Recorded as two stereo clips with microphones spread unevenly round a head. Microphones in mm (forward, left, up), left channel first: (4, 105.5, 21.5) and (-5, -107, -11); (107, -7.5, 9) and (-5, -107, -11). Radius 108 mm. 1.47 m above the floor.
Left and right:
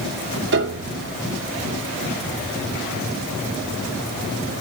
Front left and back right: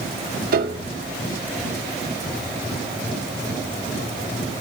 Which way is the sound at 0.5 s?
130° right.